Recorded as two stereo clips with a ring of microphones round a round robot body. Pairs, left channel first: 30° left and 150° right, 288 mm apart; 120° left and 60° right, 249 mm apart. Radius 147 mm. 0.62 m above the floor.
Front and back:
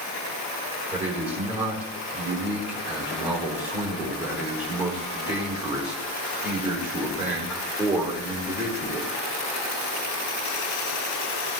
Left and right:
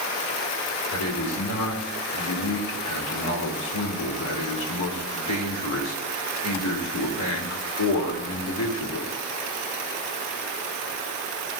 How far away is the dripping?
I don't hear dripping.